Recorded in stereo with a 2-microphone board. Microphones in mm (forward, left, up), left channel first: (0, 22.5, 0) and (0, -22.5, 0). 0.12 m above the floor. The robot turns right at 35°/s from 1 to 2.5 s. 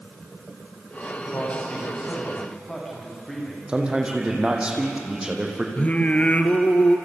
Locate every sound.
1.2 s a man speaking: 125° left, 8.5 m; by 3.6 s 170° left, 8.5 m
3.7 s a man speaking: 25° right (ahead or behind), 4.5 m
5.8 s singing: 30° left (ahead or behind), 1.6 m